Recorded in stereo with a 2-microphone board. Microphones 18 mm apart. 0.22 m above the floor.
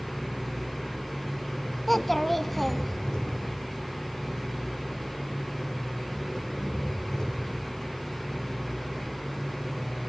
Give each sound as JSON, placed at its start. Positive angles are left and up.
{"t": 0.0, "sound": "an engine running", "side_deg": 35, "distance_m": 7.0}
{"t": 1.9, "sound": "a child speaking", "side_deg": 5, "distance_m": 1.1}